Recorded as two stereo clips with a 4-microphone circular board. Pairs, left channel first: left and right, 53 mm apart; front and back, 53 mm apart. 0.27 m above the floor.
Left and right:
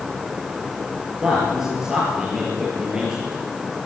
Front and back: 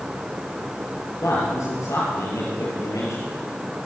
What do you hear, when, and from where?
1.2 s a man speaking: 15° right, 6.5 m